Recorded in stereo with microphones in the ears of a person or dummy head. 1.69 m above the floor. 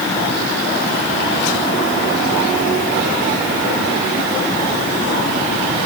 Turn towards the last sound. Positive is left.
No sound to turn to.